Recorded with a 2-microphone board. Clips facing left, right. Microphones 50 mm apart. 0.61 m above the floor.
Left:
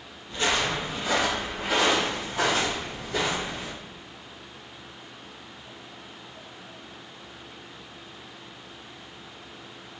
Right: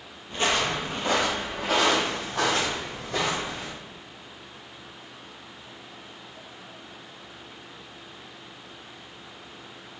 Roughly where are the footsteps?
Right.